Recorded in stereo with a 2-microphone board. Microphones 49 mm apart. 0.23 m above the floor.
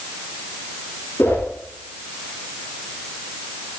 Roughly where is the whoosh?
Left.